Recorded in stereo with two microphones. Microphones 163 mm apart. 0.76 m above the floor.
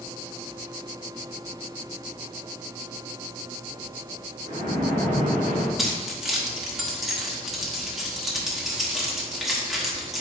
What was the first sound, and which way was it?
A splash, 45° right (ahead or behind).